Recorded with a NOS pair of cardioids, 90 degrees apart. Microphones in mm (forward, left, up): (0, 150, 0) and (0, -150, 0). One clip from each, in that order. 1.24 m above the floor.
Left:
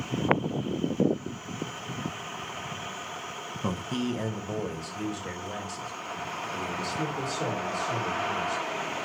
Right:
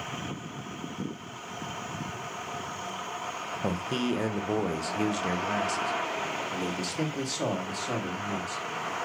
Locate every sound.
3.6 s a man speaking: 5° right, 0.9 m; by 8.6 s 75° right, 3 m